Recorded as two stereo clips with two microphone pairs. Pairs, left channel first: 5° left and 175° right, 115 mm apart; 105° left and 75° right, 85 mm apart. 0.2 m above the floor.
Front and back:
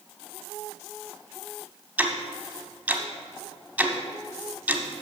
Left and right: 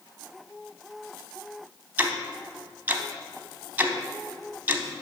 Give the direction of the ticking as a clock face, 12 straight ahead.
4 o'clock.